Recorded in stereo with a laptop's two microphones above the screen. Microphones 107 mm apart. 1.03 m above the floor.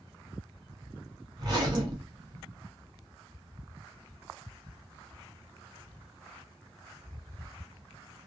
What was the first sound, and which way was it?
A zipper, 40° right (ahead or behind).